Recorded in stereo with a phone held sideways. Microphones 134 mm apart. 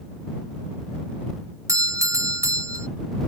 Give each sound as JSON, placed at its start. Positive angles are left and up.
{"t": 1.7, "sound": "a doorbell", "side_deg": -20}